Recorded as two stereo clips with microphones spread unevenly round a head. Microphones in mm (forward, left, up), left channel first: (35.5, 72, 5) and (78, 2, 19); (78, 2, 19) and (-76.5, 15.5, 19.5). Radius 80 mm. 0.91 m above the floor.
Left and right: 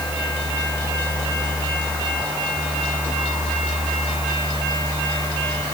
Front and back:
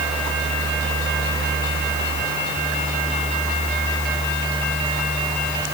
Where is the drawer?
I don't hear a drawer.